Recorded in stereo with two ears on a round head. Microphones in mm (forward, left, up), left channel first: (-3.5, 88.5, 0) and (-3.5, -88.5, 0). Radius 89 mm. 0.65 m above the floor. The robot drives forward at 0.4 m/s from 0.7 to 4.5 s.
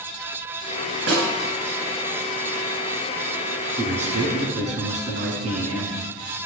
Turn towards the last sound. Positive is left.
turn(degrees=-40)  # may be behind; listen again after turning